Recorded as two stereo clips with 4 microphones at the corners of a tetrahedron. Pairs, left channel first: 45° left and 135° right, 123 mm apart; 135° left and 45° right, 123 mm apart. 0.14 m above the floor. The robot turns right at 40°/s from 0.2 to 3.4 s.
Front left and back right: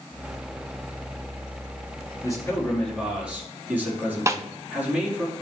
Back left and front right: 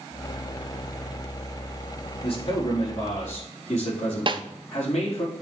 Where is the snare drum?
75° right, 0.6 m.